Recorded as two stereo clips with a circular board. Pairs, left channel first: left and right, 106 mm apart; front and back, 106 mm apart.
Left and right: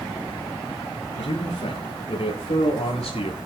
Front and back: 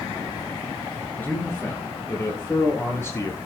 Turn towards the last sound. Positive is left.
turn(degrees=65)